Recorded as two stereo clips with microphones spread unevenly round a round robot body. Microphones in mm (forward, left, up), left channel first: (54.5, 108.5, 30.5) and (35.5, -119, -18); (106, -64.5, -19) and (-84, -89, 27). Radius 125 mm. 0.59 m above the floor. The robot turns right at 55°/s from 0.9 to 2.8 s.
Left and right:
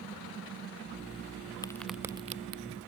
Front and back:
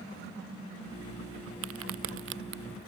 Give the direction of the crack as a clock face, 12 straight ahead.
7 o'clock.